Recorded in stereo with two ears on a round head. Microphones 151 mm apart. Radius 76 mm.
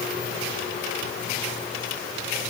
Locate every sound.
Only background noise.